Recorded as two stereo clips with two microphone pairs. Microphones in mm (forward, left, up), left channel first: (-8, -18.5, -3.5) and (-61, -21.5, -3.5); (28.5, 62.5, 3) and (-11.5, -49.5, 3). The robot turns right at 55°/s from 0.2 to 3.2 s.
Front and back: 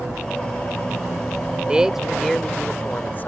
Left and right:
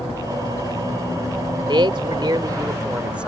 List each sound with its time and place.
1.7 s a man speaking: 115° right; by 3.3 s 35° right